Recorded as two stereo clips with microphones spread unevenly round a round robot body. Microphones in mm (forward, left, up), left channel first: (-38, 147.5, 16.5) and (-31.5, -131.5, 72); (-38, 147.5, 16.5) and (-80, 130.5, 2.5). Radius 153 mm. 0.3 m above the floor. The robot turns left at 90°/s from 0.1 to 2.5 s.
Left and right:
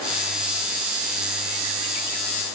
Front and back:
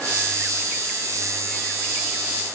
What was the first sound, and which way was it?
Only background noise.